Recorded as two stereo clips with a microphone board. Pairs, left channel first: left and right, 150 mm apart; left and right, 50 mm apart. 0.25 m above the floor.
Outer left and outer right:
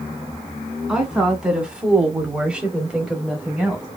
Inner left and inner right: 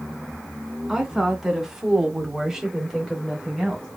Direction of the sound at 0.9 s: 5° right (ahead or behind).